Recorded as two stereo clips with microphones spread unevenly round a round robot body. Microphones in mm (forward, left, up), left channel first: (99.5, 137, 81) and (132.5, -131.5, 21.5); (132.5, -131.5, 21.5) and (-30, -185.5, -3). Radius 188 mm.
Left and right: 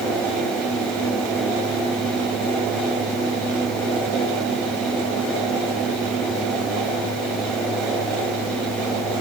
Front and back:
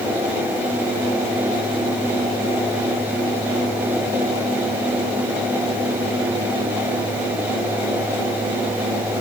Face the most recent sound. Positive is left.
No sound to turn to.